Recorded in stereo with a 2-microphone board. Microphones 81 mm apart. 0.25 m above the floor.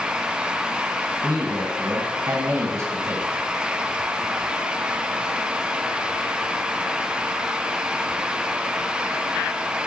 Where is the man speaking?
50° right (ahead or behind), 2 m; by 3.3 s 25° right (ahead or behind), 1.4 m.